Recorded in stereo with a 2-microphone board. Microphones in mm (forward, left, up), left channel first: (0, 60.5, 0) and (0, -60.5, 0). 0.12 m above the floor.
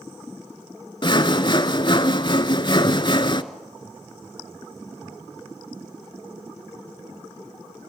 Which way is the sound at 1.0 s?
40° left (ahead or behind).